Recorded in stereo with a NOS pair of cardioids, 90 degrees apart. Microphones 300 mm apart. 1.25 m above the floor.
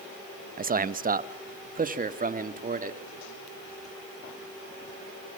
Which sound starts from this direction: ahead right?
A man speaking, at 0.6 s.